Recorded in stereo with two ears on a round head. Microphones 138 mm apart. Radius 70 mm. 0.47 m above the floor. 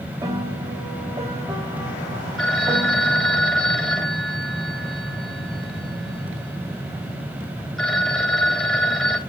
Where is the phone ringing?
5° left (ahead or behind), 1.4 m.